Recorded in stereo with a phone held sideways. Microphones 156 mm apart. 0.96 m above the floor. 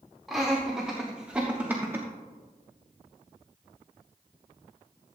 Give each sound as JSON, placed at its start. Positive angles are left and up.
{"t": 0.3, "sound": "laughter", "side_deg": 0, "distance_m": 1.8}